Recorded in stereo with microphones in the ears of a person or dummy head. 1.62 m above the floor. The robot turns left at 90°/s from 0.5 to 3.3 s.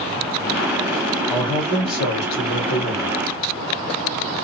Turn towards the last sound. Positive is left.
turn(degrees=-10)